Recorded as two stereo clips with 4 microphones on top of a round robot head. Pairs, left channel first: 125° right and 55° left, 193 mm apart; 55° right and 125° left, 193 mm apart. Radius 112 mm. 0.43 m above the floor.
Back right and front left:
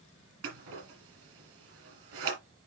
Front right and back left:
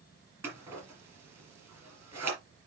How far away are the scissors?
About 3.5 m.